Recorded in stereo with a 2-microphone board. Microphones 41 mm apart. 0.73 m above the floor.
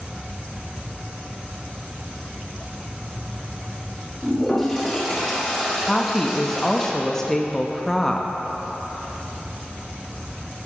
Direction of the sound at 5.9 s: 10° left (ahead or behind).